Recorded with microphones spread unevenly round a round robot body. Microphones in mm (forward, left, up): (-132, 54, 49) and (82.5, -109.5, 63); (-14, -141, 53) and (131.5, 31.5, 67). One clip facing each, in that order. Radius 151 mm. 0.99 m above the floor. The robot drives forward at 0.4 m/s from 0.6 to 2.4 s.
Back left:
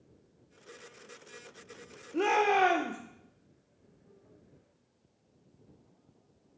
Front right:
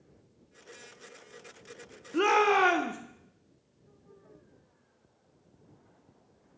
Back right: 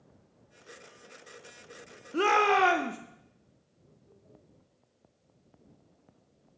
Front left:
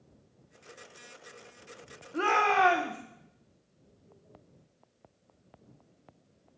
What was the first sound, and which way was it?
A shout, 100° right.